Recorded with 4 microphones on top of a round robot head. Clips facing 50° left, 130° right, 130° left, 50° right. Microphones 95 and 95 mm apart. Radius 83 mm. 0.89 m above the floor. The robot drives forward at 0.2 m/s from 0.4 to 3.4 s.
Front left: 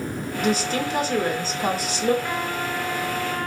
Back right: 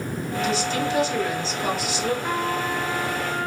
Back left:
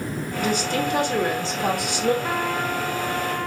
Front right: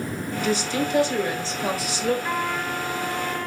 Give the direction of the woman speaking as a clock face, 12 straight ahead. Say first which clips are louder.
Front left 2 dB, back left 1 dB; 9 o'clock.